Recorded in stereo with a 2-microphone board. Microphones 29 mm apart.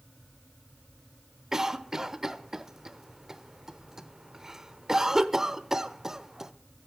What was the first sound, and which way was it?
A cough, 15° right (ahead or behind).